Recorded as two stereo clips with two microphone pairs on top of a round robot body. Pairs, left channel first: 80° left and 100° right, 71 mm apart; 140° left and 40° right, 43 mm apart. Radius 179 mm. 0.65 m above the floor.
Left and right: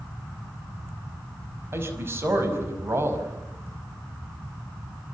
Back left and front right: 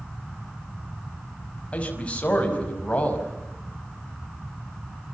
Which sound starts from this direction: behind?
A man speaking, at 1.7 s.